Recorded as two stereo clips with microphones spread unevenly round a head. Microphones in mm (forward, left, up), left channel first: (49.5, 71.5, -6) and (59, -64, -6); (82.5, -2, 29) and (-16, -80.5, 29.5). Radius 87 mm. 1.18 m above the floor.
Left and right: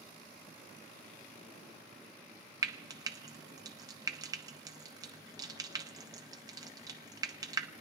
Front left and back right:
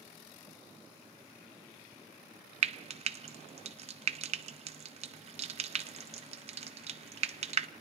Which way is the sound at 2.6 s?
150° right.